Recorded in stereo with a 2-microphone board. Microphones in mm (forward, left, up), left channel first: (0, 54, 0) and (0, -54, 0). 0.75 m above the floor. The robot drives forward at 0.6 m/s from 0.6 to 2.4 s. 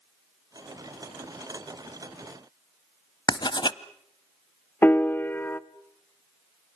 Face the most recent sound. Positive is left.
turn(degrees=20)  # may be behind; listen again after turning